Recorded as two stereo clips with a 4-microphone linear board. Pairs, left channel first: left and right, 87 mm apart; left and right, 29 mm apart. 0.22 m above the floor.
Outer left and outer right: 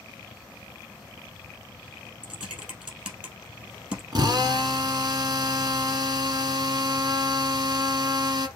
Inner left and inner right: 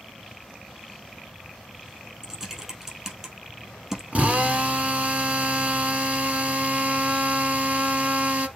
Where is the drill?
50° right (ahead or behind), 1.3 m.